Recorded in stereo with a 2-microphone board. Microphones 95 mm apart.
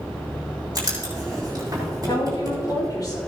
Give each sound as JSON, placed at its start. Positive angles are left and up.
{"t": 0.8, "sound": "writing", "side_deg": -40, "distance_m": 5.0}
{"t": 2.1, "sound": "a woman speaking", "side_deg": 45, "distance_m": 5.0}